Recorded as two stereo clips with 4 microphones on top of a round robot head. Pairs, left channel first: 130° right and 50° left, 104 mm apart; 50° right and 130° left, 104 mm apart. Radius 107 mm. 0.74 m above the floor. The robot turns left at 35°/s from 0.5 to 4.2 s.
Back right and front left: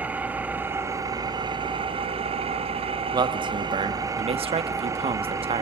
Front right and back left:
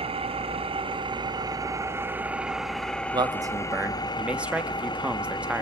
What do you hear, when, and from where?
0.0 s an engine running: 120° left, 1.4 m; by 5.6 s 10° right, 1.4 m
3.1 s a man speaking: 90° left, 1.4 m; by 5.6 s 55° left, 1.4 m